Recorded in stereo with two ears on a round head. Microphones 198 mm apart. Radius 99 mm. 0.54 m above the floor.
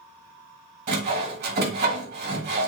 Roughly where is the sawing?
Right.